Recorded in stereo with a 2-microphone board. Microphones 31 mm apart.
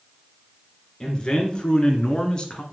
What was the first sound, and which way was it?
A man speaking, 30° left (ahead or behind).